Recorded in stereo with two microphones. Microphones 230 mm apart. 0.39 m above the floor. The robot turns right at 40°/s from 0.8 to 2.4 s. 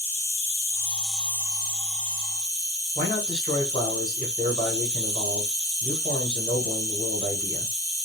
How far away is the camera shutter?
No camera shutter in this recording.